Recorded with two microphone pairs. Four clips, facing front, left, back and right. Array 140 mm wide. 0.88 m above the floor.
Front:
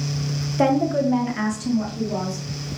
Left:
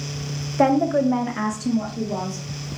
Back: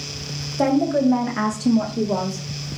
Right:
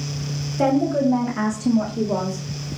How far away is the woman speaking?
About 1.2 m.